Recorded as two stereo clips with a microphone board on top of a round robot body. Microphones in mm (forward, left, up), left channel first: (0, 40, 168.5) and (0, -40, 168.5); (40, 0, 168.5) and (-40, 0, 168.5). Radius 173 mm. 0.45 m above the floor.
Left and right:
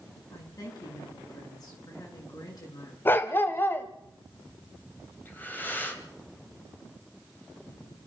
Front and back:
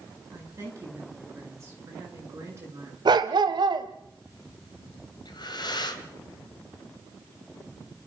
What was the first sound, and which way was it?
A woman speaking, 125° left.